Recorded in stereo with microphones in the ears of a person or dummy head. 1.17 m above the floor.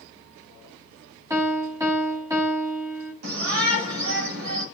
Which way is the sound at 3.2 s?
75° right (ahead or behind).